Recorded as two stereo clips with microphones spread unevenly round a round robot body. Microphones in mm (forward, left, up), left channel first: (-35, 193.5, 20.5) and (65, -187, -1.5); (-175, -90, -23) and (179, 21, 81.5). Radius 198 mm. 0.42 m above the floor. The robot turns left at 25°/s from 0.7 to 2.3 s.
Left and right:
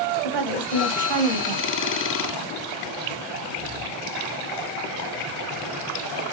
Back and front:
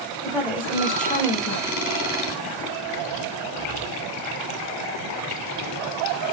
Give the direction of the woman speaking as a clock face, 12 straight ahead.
2 o'clock.